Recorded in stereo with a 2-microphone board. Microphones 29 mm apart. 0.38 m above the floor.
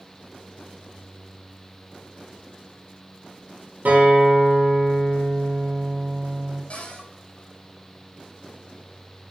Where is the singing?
No singing in this recording.